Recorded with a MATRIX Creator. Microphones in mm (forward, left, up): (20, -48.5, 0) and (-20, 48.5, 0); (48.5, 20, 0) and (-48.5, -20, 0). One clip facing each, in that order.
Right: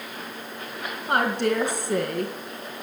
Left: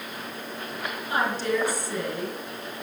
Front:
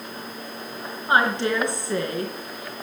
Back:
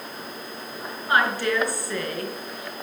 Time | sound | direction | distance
1.1 | a woman speaking | 45° right | 3.5 m